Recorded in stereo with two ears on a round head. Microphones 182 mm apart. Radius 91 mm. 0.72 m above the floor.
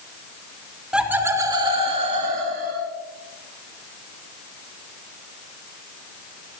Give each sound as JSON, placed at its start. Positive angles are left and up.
{"t": 0.9, "sound": "laughter", "side_deg": -5, "distance_m": 1.9}